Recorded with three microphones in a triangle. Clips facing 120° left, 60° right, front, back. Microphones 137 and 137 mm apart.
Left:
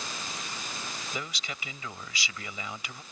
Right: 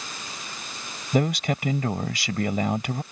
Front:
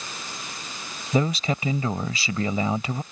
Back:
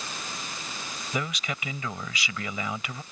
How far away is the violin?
No violin in this recording.